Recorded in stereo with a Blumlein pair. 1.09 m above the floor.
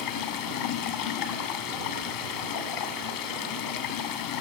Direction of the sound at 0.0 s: 50° left.